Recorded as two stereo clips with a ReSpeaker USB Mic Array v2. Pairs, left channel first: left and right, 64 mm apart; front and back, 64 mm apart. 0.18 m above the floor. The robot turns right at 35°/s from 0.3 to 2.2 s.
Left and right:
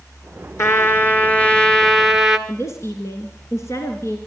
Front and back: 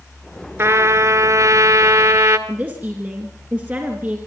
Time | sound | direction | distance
0.6 | a trumpet | 130° left | 1.5 m
2.5 | a woman speaking | 125° left | 2 m